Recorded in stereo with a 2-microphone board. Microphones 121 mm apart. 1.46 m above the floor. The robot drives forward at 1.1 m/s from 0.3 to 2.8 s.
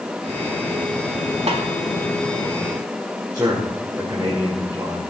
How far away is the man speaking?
About 5 m.